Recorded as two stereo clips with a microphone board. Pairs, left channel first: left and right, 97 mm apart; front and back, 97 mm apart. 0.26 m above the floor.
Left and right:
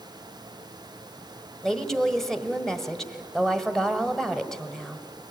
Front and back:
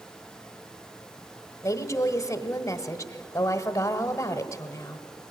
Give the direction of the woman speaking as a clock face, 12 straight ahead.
12 o'clock.